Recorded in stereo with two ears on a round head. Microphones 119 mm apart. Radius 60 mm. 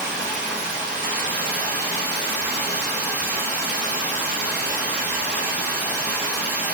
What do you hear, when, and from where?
0.0 s running water: 15° right (ahead or behind), 2.5 m